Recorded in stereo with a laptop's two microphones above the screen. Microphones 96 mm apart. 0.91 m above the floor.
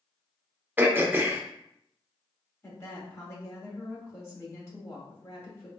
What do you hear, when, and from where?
0.8 s throat clearing: 20° right (ahead or behind), 0.5 m
2.6 s a woman speaking: 30° left (ahead or behind), 1.7 m